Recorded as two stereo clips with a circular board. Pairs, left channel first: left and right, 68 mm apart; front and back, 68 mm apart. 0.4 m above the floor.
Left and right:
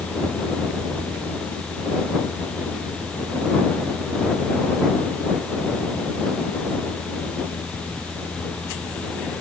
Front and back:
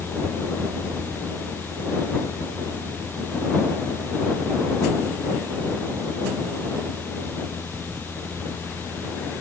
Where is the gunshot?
I don't hear a gunshot.